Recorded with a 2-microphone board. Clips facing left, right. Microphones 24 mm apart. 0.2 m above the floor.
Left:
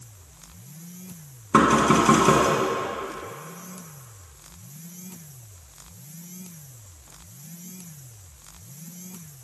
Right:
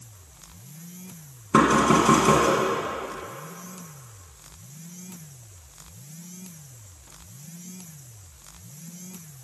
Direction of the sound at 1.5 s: 10° left (ahead or behind).